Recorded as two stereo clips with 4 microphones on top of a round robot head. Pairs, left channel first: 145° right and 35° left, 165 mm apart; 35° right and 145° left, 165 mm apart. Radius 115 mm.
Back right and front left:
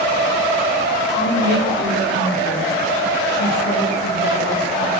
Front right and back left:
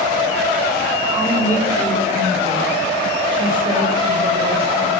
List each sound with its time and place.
1.1 s a woman speaking: 140° right, 5 m; by 4.9 s 160° right, 6 m